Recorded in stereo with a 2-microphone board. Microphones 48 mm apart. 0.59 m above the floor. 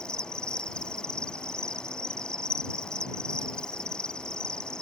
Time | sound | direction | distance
0.0 | an insect | 20° left (ahead or behind) | ?